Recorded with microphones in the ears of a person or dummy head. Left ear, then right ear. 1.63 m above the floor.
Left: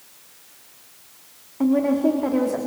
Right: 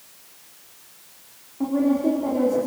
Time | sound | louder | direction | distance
1.6 | a woman speaking | left 2 dB | 65° left (ahead or behind) | 3 m